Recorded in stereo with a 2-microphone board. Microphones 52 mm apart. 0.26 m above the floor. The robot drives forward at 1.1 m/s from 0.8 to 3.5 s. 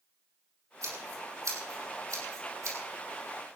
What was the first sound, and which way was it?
Scissors, 80° right.